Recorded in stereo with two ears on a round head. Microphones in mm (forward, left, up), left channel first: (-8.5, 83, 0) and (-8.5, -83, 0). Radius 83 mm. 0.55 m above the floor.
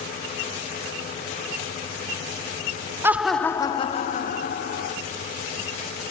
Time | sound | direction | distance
3.0 | laughter | 15° right (ahead or behind) | 0.7 m